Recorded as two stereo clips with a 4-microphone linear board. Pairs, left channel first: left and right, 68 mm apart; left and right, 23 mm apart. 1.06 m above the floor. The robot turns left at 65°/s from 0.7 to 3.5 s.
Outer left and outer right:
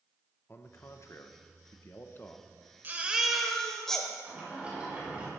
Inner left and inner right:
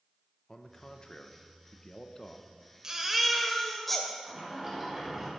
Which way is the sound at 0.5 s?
135° left.